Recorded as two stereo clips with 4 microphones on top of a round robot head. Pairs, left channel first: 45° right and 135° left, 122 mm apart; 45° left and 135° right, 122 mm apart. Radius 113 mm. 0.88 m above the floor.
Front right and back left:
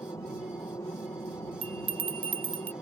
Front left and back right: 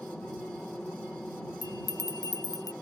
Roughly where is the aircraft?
Ahead right.